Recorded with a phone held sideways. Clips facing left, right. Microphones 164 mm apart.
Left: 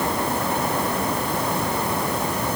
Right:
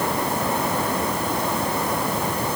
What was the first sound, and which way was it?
Only background noise.